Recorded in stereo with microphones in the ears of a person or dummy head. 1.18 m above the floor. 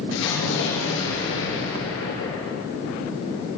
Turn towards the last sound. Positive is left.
turn(degrees=70)  # may be behind; listen again after turning